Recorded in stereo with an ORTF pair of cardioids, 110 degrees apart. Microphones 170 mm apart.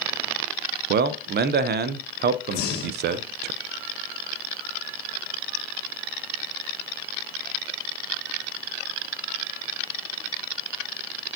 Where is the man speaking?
70° right, 0.5 m.